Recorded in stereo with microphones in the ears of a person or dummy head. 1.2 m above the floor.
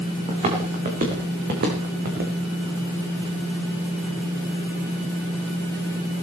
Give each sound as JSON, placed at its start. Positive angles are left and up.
{"t": 0.3, "sound": "footsteps", "side_deg": -40, "distance_m": 5.0}